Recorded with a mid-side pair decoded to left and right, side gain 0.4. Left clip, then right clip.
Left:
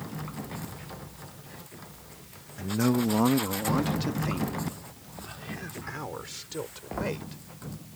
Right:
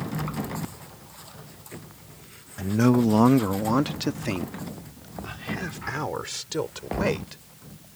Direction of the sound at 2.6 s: 35° right.